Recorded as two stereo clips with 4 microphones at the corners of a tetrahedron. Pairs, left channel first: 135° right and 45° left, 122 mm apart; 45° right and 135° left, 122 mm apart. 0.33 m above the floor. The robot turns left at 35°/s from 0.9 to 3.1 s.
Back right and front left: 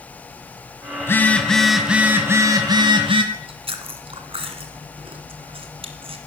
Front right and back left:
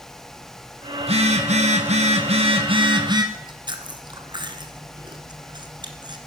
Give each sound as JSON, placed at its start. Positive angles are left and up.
{"t": 1.0, "sound": "a phone buzzing", "azimuth_deg": 160, "distance_m": 1.9}
{"t": 3.3, "sound": "chewing", "azimuth_deg": 85, "distance_m": 1.7}